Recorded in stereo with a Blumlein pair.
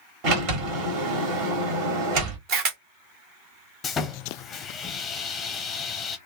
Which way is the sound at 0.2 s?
45° right.